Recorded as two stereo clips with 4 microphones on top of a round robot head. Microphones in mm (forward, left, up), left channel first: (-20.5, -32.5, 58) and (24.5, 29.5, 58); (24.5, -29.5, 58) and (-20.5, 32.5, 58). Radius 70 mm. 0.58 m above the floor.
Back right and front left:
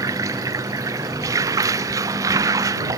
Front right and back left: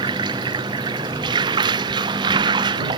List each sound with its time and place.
0.0 s running water: 100° left